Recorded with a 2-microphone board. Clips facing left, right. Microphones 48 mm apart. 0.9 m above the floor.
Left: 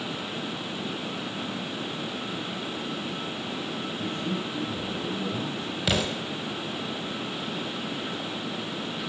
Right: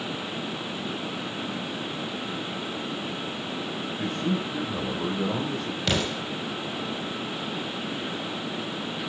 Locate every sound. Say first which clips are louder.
4.0 s a man speaking: right 5 dB; 85° right, 4.5 m
5.9 s an explosion: even; 5° left (ahead or behind), 4.5 m